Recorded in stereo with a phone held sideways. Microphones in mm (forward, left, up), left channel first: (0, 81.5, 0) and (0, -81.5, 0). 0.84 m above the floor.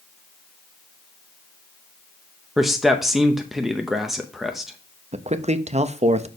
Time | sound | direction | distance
2.6 | a man speaking | centre (ahead or behind) | 0.6 m
5.1 | a man speaking | 40° right (ahead or behind) | 0.6 m